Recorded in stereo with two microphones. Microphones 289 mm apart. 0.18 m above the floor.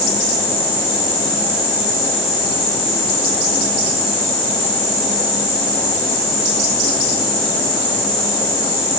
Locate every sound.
Only background noise.